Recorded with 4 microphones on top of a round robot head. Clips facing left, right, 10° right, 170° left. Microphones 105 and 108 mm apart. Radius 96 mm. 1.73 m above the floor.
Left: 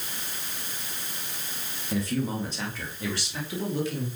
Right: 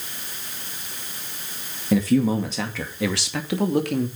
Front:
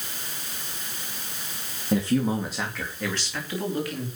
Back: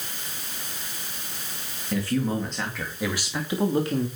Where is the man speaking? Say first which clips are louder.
Right 9 dB, front 2 dB; 80° right, 2.5 m; by 4.1 s 120° right, 3 m.